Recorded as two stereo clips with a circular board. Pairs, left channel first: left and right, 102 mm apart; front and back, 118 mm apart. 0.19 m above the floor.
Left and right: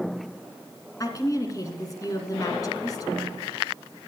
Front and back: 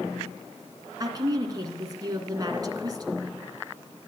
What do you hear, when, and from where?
1.0 s a woman speaking: 130° left, 2.5 m